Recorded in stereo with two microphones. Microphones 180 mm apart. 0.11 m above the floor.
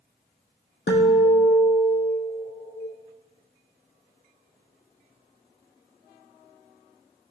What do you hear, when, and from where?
0.9 s a guitar: 80° left, 1.0 m